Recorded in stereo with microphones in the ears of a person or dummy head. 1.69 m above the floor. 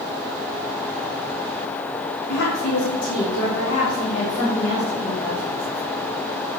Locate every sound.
2.3 s a woman speaking: 50° left (ahead or behind), 1.3 m; by 5.5 s 70° left (ahead or behind), 2 m